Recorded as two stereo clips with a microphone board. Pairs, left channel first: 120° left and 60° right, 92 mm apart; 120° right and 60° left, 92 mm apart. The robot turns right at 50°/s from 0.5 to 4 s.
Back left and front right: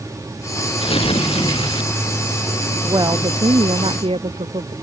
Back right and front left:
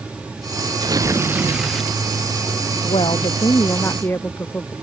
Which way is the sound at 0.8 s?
105° left.